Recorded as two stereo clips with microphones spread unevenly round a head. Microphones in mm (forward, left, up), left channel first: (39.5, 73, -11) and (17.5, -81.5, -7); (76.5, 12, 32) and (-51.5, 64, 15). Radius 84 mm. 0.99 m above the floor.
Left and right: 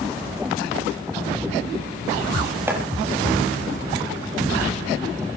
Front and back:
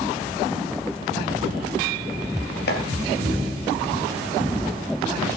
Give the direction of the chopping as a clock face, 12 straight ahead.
1 o'clock.